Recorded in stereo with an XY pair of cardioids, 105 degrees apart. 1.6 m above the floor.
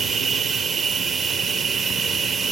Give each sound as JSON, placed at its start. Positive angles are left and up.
{"t": 0.0, "sound": "a machine running", "azimuth_deg": -40, "distance_m": 0.9}